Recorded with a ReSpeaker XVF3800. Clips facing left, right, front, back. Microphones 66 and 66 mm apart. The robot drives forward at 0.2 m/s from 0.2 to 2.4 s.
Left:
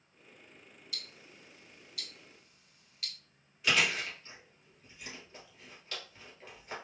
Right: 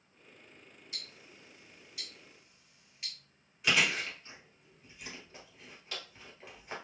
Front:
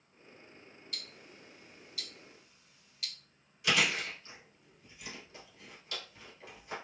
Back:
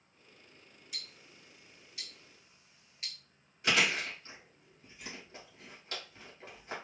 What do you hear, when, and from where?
0.9 s ticking: 120° right, 0.8 m; by 3.1 s 145° right, 0.9 m
3.6 s chewing: 175° right, 2 m